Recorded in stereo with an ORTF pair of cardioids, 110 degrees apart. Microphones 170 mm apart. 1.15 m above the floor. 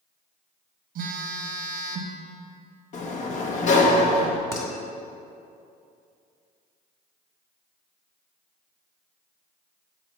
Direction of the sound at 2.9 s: 45° left.